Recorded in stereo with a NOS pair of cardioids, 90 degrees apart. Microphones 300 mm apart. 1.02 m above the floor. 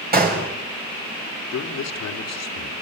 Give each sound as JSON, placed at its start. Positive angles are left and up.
{"t": 0.1, "sound": "a gunshot", "azimuth_deg": -30, "distance_m": 6.0}
{"t": 1.5, "sound": "a man speaking", "azimuth_deg": 65, "distance_m": 3.0}